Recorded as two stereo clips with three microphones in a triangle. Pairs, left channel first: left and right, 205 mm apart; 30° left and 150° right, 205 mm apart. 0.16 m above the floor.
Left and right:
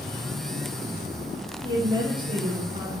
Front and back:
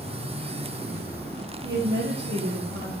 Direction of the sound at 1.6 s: 155° right.